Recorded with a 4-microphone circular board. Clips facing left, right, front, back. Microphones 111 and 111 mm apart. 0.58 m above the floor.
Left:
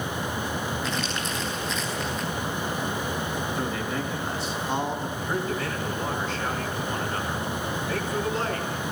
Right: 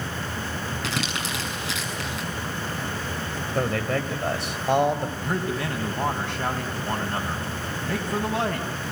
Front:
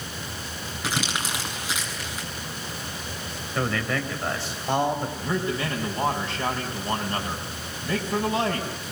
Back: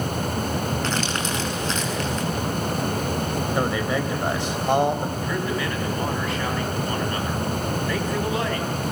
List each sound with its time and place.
0.8 s crumpling: 80° right, 7 m
3.5 s a man speaking: 110° right, 3.5 m
5.2 s a man speaking: 60° right, 5.5 m